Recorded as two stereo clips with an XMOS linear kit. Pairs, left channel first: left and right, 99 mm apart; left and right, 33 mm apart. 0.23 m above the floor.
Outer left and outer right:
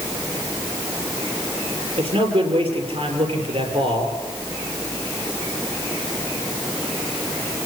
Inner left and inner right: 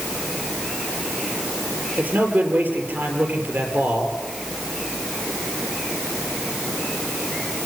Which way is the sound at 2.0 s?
65° right (ahead or behind).